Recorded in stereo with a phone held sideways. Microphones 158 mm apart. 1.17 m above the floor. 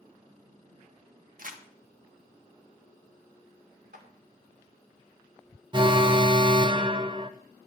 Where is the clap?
65° right (ahead or behind), 2.5 m.